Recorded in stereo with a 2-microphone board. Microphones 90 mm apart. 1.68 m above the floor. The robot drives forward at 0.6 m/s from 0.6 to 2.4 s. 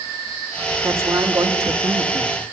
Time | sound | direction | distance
0.8 | a man speaking | 30° right (ahead or behind) | 3 m